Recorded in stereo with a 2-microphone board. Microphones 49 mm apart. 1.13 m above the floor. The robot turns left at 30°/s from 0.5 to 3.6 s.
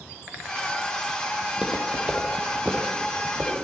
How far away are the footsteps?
About 2.0 m.